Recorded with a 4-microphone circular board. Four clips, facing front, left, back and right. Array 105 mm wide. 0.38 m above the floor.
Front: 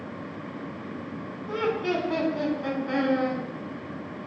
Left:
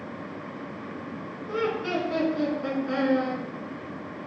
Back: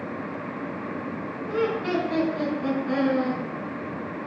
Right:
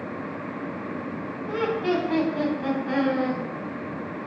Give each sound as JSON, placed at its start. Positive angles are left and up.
{"t": 1.5, "sound": "laughter", "azimuth_deg": -85, "distance_m": 3.0}